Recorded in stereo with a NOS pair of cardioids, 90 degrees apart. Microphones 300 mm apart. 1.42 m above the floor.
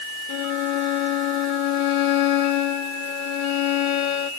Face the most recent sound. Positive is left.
turn(degrees=70)